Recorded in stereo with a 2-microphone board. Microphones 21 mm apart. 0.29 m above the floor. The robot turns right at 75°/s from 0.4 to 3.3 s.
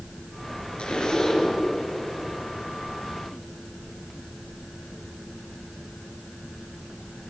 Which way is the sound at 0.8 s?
100° left.